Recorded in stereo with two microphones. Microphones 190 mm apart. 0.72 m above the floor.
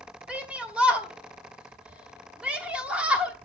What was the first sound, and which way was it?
A shout, 5° right (ahead or behind).